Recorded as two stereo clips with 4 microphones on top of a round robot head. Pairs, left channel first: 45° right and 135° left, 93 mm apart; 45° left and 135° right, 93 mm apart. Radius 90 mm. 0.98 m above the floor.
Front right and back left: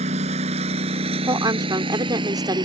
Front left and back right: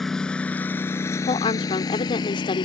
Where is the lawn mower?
135° left; by 2.6 s 90° left.